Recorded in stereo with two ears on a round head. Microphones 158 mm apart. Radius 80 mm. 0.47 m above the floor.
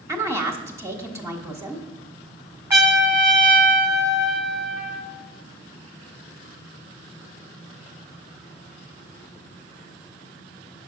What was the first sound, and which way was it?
A woman speaking, 15° right (ahead or behind).